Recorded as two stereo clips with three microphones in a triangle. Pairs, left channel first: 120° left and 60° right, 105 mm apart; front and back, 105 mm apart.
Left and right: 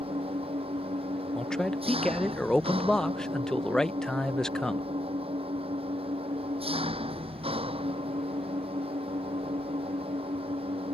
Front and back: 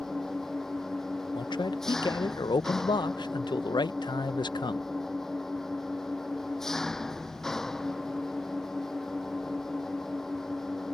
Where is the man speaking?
35° left.